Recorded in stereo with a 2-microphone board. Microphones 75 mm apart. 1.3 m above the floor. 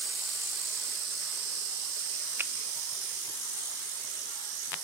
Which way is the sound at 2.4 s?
30° right (ahead or behind).